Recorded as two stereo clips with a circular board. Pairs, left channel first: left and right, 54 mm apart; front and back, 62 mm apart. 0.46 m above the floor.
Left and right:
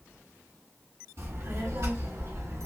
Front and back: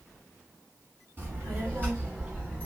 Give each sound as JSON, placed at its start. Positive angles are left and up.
{"t": 1.2, "sound": "a child speaking", "azimuth_deg": -130, "distance_m": 2.5}